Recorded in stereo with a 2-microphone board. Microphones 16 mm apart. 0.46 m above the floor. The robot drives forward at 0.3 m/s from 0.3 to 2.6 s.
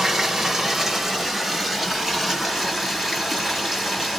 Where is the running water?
30° right (ahead or behind), 0.8 m; by 4.2 s 15° right (ahead or behind), 1.4 m.